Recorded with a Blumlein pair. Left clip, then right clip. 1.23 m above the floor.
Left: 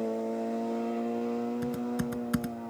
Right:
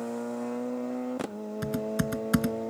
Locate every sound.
1.6 s typing on a keyboard: 70° right